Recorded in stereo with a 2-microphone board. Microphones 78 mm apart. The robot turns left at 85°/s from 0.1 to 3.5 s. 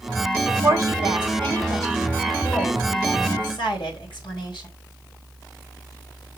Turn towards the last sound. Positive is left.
turn(degrees=85)